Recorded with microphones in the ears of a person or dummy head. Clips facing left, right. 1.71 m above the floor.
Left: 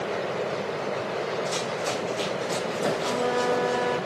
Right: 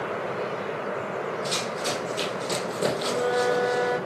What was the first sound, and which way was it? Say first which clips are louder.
Running footsteps: left 1 dB; 45° right (ahead or behind).